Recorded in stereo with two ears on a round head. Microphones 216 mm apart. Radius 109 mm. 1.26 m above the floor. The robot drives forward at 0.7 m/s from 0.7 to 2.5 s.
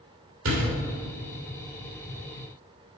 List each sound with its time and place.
0.5 s a door slam: 55° right (ahead or behind), 2.5 m